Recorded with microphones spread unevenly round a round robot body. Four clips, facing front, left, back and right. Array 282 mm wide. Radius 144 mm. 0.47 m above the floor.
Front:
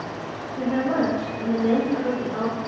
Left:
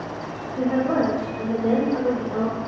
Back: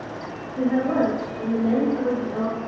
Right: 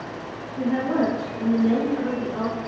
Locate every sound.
0.6 s a woman speaking: 105° left, 1.6 m; by 2.6 s 55° left, 1.6 m